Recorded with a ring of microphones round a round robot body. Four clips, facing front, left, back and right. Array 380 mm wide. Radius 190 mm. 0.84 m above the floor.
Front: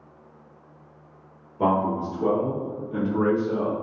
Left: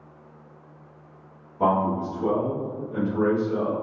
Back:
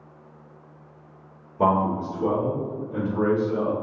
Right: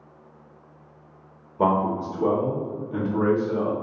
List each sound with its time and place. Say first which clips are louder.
1.6 s a man speaking: even, back 1 dB; 110° right, 1.2 m; by 3.7 s 45° right, 1.5 m